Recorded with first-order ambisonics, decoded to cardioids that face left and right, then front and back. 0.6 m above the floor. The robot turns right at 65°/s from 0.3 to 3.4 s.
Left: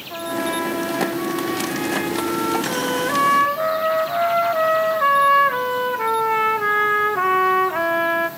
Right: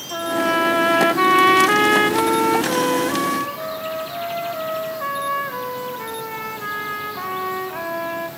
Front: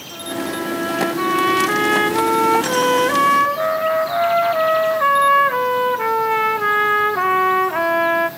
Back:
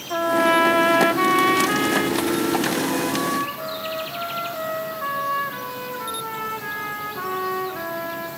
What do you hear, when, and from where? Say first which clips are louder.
0.1 s a trumpet: right 4 dB, back 9 dB; 170° right, 0.6 m; by 8.3 s 30° left, 0.6 m